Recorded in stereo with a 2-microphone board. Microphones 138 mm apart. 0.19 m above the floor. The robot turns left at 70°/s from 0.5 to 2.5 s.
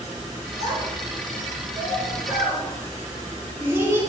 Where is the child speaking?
20° right (ahead or behind), 1.4 m.